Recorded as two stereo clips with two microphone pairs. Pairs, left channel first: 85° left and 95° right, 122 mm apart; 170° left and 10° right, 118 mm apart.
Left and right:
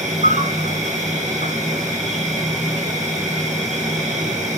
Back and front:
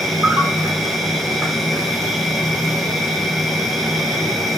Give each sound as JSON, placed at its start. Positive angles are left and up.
{"t": 0.0, "sound": "an insect", "azimuth_deg": -105, "distance_m": 8.5}